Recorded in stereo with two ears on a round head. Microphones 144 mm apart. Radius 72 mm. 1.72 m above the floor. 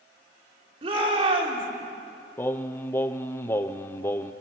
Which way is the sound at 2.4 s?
15° left (ahead or behind).